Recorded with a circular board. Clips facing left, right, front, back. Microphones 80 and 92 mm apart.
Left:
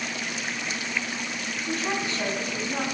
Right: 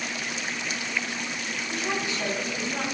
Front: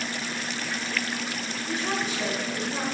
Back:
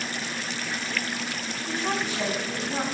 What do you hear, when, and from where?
1.7 s a woman speaking: 140° left, 6 m